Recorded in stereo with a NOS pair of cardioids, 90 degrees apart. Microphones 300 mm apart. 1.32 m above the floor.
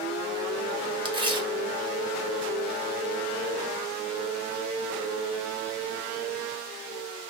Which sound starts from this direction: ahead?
Tearing paper, at 1.1 s.